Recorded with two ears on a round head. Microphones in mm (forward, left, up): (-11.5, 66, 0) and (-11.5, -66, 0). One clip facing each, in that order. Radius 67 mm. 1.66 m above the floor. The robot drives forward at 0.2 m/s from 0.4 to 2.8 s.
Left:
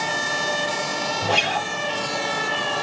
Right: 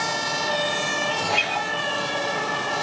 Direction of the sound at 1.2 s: 45° left (ahead or behind).